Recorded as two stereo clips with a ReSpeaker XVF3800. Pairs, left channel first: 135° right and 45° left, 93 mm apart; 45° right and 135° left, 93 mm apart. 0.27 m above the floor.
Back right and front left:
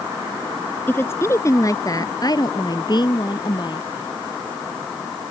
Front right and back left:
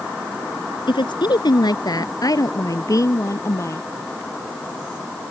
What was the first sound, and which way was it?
A woman speaking, 70° right.